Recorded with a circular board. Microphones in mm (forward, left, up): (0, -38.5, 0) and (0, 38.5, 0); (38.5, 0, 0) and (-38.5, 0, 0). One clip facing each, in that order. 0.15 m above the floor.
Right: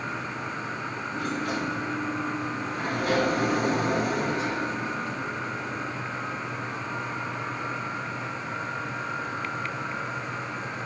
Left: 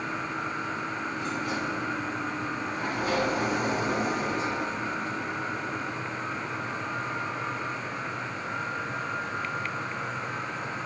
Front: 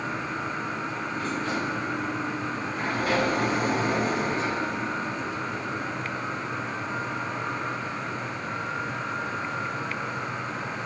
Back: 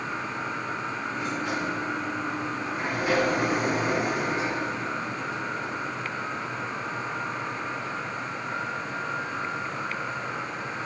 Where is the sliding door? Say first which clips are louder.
Right 4 dB, front 1 dB; 105° right, 1.2 m.